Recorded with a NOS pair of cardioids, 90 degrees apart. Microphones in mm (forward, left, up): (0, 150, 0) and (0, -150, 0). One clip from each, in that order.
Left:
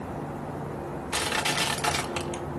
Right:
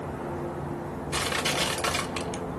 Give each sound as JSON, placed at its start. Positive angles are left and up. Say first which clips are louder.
{"t": 1.1, "sound": "crushing", "louder": "left 1 dB", "azimuth_deg": 15, "distance_m": 1.4}